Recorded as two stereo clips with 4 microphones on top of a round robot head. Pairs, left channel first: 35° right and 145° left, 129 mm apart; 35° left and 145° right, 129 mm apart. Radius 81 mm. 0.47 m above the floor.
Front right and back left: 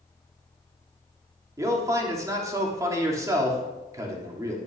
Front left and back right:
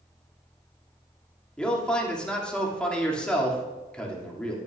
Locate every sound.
1.6 s a man speaking: 110° left, 1.5 m